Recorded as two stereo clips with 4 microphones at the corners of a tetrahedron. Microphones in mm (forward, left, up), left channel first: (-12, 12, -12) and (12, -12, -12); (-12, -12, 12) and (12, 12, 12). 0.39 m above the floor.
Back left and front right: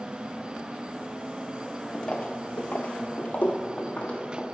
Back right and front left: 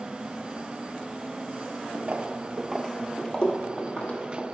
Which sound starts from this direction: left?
Footsteps, at 1.9 s.